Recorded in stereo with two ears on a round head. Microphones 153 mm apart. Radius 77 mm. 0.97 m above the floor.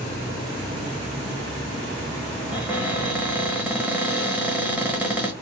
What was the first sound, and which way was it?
A cupboard door, 10° right (ahead or behind).